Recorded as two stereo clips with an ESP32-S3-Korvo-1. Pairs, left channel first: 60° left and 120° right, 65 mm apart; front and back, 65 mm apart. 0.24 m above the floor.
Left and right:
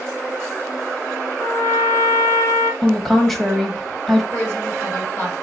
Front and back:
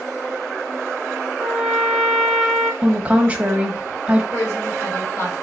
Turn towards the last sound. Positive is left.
turn(degrees=20)